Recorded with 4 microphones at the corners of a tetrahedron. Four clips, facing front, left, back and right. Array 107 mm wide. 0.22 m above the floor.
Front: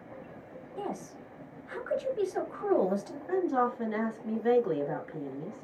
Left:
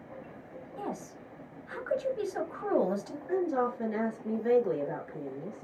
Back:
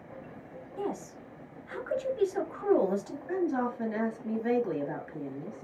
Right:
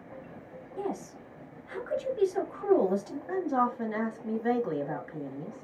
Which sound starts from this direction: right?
A woman speaking, at 3.3 s.